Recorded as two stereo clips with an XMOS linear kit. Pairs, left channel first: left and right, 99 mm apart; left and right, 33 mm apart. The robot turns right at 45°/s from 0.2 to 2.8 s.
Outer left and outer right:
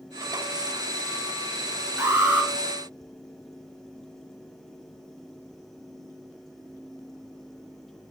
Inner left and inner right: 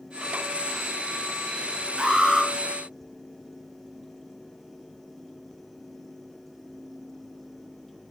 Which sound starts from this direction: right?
An alarm, at 2.0 s.